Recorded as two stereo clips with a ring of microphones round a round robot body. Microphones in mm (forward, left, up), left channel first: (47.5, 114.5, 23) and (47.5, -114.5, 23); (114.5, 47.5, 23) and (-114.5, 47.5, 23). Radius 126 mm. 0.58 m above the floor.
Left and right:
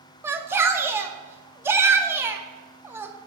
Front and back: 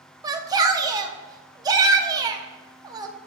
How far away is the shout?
About 0.6 m.